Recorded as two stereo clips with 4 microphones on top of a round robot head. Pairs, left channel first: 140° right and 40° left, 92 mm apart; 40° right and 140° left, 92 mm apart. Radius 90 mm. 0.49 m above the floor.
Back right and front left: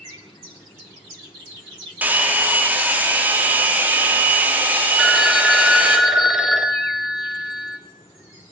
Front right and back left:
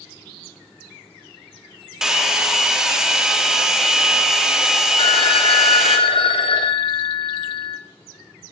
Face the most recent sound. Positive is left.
turn(degrees=-50)